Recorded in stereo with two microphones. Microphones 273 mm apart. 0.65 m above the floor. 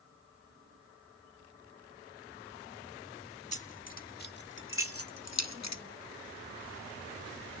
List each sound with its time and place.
3.5 s keys jangling: 25° left (ahead or behind), 1.6 m; by 5.8 s 70° left (ahead or behind), 0.8 m